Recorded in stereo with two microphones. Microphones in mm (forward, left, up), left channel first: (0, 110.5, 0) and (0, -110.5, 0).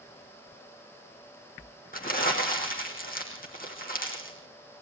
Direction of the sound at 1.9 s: 40° left (ahead or behind).